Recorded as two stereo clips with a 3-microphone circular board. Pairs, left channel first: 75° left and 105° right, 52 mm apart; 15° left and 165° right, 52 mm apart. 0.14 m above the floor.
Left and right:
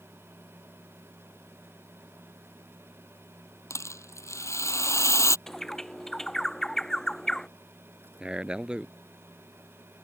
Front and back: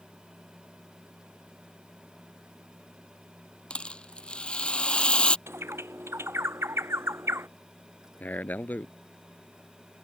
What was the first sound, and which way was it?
A rattle, 85° left.